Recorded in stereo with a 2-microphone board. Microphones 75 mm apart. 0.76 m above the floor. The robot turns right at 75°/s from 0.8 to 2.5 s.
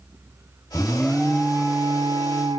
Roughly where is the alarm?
Behind left.